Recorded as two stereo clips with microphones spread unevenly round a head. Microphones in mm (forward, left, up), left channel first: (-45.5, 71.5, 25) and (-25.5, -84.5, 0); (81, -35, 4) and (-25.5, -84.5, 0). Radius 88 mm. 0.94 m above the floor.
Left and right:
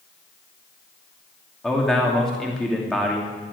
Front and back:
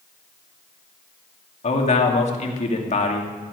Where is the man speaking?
5° left, 2.5 m.